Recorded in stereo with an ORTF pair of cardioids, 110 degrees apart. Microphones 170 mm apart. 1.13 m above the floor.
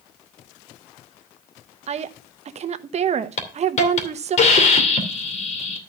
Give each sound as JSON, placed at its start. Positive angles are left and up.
{"t": 1.9, "sound": "a woman speaking", "azimuth_deg": -40, "distance_m": 1.1}
{"t": 3.4, "sound": "a hiss", "azimuth_deg": 45, "distance_m": 2.5}